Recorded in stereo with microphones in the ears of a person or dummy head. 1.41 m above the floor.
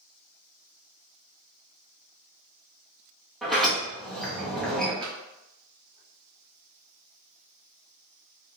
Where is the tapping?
30° right (ahead or behind), 1.0 m.